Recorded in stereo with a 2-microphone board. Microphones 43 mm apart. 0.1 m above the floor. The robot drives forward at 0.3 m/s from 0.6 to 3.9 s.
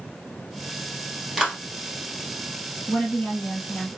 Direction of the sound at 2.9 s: 45° left (ahead or behind).